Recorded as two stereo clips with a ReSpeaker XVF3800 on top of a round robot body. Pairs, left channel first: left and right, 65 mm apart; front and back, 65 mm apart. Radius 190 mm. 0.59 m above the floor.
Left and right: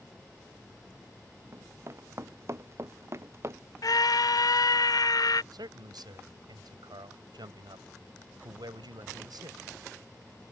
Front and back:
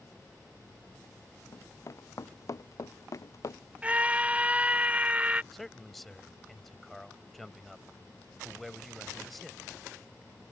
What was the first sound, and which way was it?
Running footsteps, 40° right.